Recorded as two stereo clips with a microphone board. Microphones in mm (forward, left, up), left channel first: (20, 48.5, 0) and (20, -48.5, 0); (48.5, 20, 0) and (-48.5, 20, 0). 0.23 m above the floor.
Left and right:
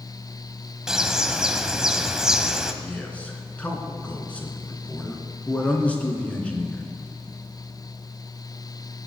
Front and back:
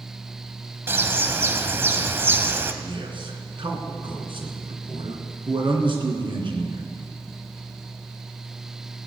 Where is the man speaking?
165° left, 2.5 m.